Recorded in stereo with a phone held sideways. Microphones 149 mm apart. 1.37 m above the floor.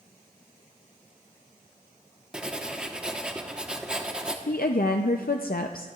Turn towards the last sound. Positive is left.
turn(degrees=80)